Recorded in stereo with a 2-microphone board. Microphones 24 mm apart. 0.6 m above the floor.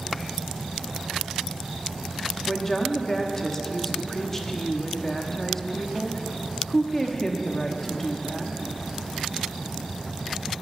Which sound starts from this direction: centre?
A woman speaking, at 2.5 s.